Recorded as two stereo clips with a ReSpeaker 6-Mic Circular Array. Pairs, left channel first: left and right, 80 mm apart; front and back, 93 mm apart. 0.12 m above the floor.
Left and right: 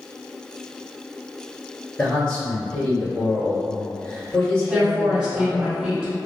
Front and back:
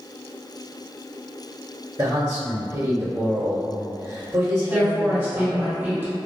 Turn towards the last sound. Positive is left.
turn(degrees=-150)